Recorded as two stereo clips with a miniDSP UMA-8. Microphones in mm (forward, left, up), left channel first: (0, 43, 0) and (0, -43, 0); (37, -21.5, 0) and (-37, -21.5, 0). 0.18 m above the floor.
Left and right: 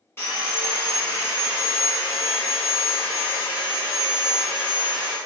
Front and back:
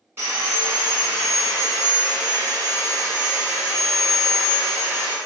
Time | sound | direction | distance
0.2 | sawing | 140° left | 1.3 m